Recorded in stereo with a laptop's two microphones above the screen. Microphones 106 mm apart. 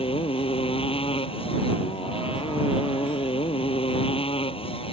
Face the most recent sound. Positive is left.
turn(degrees=65)  # may be behind; listen again after turning